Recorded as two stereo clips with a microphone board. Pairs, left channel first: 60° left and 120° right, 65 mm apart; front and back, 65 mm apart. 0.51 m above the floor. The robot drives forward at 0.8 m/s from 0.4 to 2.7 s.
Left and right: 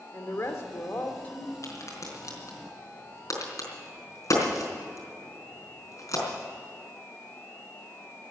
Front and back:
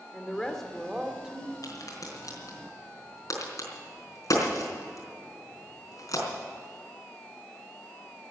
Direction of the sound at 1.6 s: 20° left.